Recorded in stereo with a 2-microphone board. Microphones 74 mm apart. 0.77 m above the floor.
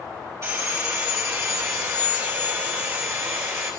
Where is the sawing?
40° right (ahead or behind), 2.0 m.